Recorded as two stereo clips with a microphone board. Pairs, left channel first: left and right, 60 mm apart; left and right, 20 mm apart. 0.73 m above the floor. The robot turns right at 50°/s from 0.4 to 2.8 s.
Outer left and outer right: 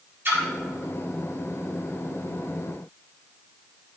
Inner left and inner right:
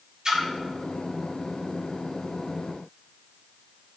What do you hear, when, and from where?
0.2 s a splash: 35° right (ahead or behind), 1.6 m; by 0.5 s 40° right (ahead or behind), 1.6 m